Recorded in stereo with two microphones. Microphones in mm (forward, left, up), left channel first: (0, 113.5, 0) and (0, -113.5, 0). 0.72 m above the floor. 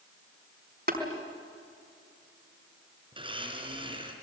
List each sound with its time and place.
0.9 s tapping: 45° right (ahead or behind), 4.5 m
3.1 s a blender: 20° right (ahead or behind), 4 m